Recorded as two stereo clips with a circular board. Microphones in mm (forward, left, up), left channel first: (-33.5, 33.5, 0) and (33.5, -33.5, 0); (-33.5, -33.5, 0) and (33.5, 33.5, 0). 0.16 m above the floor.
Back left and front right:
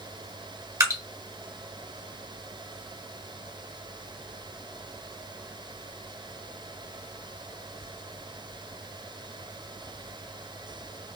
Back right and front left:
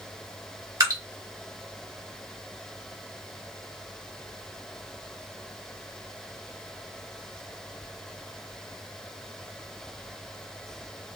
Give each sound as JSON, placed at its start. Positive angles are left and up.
{"t": 0.8, "sound": "dripping", "azimuth_deg": 0, "distance_m": 1.2}